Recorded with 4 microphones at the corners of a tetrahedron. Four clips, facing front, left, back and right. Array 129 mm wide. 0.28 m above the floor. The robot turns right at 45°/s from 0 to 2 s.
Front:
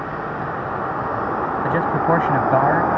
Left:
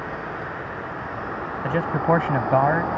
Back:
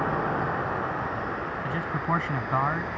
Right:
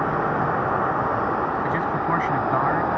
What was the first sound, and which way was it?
A vehicle, 100° right.